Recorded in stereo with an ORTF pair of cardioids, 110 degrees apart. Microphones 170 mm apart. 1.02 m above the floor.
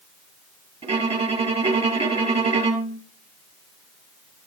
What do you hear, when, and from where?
0.8 s a violin: 40° right, 3 m